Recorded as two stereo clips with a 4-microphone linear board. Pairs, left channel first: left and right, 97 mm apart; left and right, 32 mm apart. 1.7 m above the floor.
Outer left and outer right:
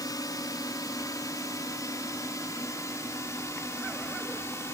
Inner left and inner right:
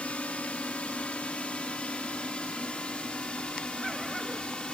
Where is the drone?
40° left (ahead or behind); by 4.7 s 30° left (ahead or behind).